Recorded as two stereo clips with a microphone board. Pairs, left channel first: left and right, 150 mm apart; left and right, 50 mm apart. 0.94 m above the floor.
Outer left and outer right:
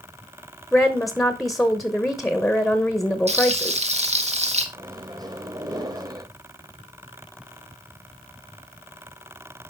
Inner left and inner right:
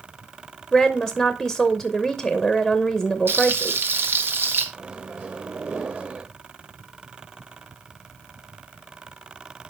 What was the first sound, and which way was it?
A woman speaking, centre (ahead or behind).